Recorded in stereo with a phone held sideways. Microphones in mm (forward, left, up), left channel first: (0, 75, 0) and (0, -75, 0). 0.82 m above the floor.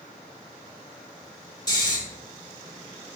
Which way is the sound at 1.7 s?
30° left (ahead or behind).